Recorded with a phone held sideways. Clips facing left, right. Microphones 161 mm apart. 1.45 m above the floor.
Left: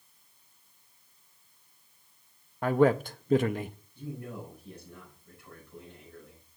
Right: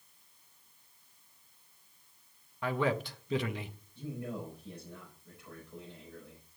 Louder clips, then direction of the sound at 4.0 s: Right 1 dB; 20° right (ahead or behind).